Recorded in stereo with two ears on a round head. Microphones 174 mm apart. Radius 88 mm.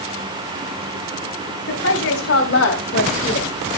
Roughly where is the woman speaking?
Left.